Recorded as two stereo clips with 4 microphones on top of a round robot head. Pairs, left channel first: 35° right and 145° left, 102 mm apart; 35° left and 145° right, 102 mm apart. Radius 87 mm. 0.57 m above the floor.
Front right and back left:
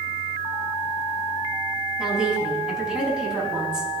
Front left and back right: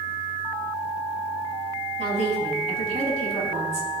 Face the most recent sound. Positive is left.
turn(degrees=-130)